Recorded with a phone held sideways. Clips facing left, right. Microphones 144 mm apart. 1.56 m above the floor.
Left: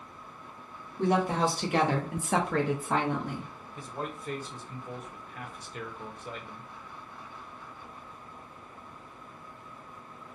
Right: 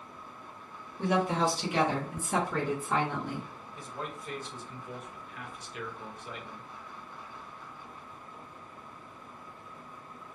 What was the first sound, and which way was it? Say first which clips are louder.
A woman speaking: left 2 dB; 40° left (ahead or behind).